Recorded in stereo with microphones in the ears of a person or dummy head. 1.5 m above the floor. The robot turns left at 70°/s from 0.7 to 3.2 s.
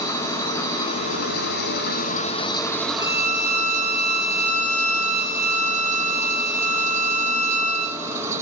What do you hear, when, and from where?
0.0 s an engine running: 165° left, 1.1 m; by 8.4 s 10° right, 1.1 m
3.0 s a violin: 15° left (ahead or behind), 1.7 m; by 8.0 s 30° left (ahead or behind), 1.7 m